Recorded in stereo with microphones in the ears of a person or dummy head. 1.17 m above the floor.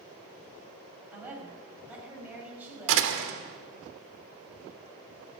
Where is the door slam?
80° right, 2.5 m.